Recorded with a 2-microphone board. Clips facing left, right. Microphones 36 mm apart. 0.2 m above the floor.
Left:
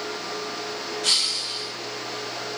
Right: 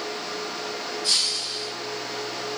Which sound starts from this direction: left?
Breaking glass, at 1.0 s.